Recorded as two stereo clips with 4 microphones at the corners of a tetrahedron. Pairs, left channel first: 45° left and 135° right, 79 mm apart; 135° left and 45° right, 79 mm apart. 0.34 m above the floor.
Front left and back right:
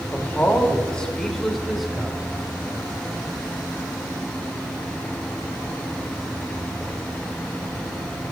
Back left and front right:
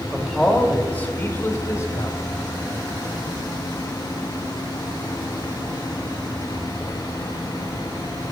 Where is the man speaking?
40° left, 1.1 m; by 2.2 s 145° left, 1.3 m.